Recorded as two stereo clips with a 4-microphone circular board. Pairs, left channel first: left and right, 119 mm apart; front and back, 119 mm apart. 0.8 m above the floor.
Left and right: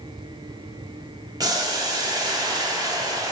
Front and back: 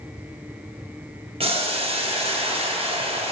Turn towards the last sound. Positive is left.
turn(degrees=-150)